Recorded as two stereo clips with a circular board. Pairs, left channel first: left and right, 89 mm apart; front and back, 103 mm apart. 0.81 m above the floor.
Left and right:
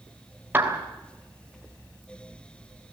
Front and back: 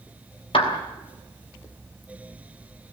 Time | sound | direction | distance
0.5 | a clap | 20° right | 3 m